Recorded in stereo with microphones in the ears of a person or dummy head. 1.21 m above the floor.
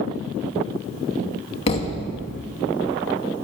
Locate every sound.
1.7 s a thud: 35° left (ahead or behind), 0.7 m